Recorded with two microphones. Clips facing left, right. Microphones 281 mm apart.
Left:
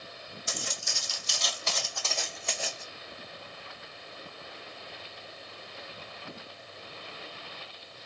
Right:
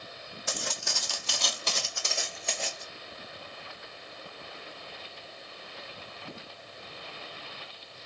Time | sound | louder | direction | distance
0.5 | footsteps | right 4 dB | 65° right (ahead or behind) | 0.8 m